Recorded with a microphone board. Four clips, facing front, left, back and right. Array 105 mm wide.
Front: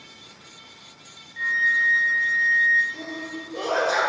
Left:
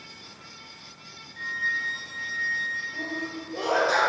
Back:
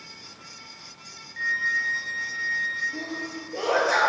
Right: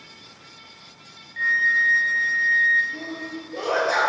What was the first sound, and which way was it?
A flute, 100° right.